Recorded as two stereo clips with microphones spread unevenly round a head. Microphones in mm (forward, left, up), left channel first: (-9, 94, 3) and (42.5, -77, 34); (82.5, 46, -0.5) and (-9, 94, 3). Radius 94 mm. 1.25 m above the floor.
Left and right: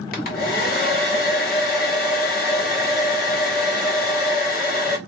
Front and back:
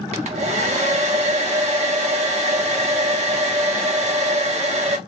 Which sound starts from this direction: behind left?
A hair dryer, at 0.1 s.